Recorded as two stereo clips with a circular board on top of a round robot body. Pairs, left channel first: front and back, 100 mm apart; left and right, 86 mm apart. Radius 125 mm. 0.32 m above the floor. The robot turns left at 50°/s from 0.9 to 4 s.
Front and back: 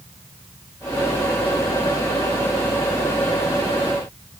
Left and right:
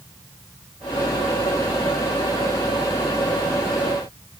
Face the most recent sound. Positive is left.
No sound to turn to.